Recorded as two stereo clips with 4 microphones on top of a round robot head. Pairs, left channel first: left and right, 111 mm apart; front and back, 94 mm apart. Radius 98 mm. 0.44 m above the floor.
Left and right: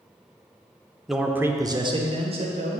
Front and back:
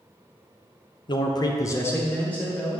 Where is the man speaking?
Straight ahead, 1.2 m; by 2.8 s 85° right, 2 m.